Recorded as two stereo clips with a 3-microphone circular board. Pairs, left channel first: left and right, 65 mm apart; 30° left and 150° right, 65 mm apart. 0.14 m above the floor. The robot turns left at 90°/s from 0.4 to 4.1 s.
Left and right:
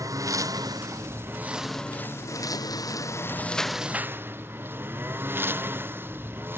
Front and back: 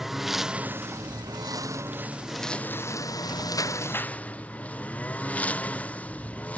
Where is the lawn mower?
65° right; by 6.6 s 35° right.